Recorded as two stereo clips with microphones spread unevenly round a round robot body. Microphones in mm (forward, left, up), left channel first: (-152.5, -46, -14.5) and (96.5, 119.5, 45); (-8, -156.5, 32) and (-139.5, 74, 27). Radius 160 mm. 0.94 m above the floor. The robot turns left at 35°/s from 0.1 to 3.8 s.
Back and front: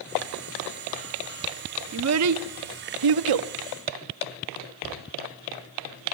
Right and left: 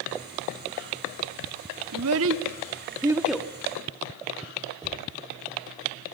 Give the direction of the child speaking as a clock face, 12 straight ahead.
9 o'clock.